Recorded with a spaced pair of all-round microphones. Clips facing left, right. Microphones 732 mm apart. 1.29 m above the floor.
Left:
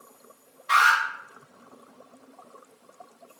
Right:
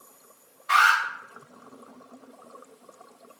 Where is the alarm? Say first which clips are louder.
Even; 20° right (ahead or behind), 2 m.